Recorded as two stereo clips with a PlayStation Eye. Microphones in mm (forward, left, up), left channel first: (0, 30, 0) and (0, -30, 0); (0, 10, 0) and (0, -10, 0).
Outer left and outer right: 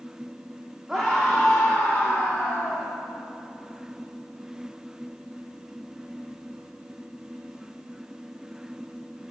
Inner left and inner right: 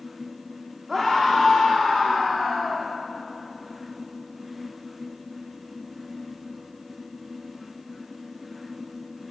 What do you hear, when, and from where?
0.9 s a scream: 10° right (ahead or behind), 2.5 m; by 2.9 s 20° left (ahead or behind), 4.5 m